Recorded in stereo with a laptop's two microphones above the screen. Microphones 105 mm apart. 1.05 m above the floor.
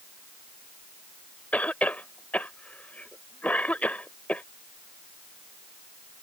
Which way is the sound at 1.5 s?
15° left (ahead or behind).